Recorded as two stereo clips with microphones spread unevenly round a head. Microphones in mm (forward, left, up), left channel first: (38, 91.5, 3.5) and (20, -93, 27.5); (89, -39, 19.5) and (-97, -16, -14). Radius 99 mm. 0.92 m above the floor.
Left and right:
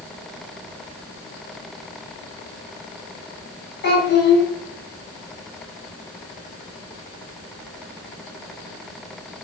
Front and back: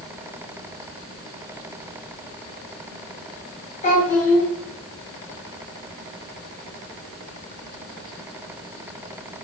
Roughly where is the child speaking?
Ahead left.